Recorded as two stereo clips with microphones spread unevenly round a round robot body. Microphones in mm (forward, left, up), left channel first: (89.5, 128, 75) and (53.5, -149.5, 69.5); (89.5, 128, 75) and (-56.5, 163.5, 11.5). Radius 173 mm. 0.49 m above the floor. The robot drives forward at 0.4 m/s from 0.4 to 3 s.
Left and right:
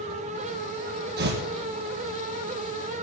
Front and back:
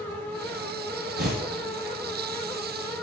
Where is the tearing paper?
160° right, 4 m.